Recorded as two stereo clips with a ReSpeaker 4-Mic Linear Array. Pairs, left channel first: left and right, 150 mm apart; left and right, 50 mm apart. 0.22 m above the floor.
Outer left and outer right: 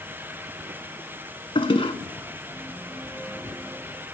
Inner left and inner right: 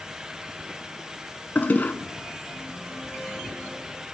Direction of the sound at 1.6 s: 40° left (ahead or behind).